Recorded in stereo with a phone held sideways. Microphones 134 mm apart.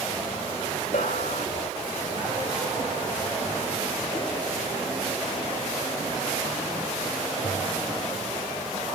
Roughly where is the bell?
Left.